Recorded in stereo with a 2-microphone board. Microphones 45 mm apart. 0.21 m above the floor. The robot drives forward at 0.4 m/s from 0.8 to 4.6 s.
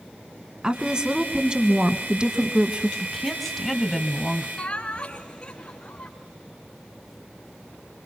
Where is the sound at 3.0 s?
5° left (ahead or behind), 1.5 m.